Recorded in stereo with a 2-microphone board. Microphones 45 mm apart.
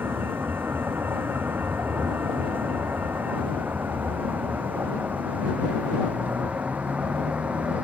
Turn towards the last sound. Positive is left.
turn(degrees=-30)  # may be behind; listen again after turning